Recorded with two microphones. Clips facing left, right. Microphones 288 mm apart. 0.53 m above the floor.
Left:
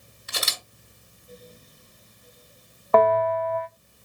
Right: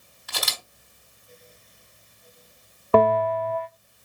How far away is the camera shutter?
About 3.5 m.